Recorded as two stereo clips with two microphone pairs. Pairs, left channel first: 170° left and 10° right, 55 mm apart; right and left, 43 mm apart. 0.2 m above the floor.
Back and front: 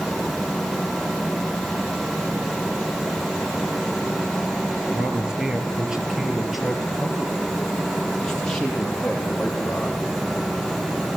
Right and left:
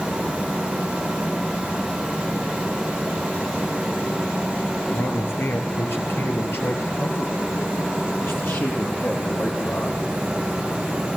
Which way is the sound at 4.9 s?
75° right.